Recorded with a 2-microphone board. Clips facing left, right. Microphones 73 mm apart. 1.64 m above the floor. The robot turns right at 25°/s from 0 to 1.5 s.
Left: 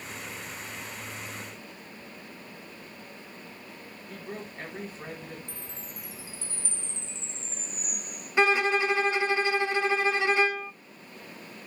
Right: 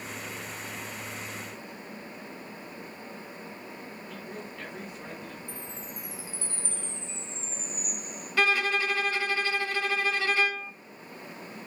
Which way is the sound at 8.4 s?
20° left (ahead or behind).